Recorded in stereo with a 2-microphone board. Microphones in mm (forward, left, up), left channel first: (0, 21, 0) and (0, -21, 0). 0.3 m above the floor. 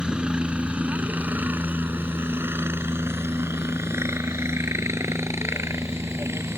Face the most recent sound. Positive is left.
turn(degrees=-75)  # may be behind; listen again after turning